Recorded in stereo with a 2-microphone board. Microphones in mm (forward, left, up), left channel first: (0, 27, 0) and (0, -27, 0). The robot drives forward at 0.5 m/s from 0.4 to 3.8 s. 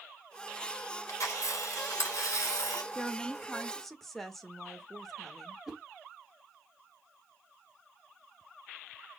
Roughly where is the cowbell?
No cowbell in this recording.